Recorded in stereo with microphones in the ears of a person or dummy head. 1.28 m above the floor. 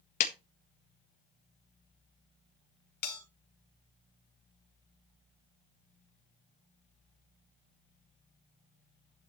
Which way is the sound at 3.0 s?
65° left (ahead or behind).